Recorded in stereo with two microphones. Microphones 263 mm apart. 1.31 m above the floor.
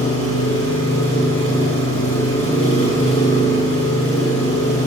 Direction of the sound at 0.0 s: 60° left (ahead or behind).